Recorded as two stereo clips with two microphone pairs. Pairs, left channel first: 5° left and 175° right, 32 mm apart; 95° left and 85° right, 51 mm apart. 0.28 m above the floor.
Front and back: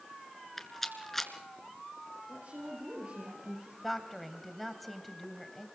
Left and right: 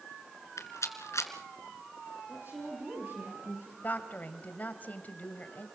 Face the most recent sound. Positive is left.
turn(degrees=90)